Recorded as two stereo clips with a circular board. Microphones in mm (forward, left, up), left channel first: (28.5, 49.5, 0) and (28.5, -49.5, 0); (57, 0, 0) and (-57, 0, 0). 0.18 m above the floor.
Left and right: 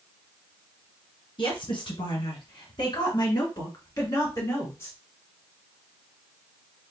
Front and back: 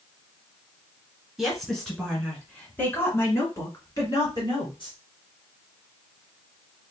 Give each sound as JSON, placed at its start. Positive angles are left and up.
{"t": 1.4, "sound": "a woman speaking", "azimuth_deg": 90, "distance_m": 2.5}